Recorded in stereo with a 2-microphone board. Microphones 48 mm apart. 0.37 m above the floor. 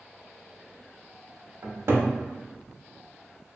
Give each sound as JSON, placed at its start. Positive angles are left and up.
{"t": 1.6, "sound": "a cupboard door", "side_deg": -65, "distance_m": 0.6}